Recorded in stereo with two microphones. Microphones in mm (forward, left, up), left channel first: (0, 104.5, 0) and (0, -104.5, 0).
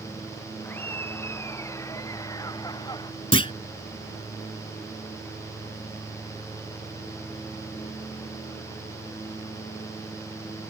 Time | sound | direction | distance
0.7 | laughter | 10° left (ahead or behind) | ?
3.3 | a clunk | 25° left (ahead or behind) | ?